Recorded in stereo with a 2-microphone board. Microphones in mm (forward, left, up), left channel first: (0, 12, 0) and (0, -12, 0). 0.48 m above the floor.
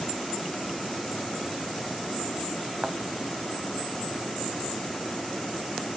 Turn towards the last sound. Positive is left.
turn(degrees=-20)  # may be behind; listen again after turning